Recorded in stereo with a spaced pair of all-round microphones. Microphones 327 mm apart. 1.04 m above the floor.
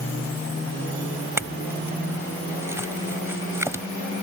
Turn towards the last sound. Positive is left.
turn(degrees=-10)  # may be behind; listen again after turning